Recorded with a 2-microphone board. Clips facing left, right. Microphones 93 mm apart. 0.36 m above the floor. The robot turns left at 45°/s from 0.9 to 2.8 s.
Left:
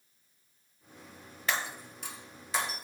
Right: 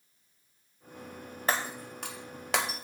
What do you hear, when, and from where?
1.5 s breaking glass: 35° right (ahead or behind), 0.7 m; by 2.9 s 70° right (ahead or behind), 0.7 m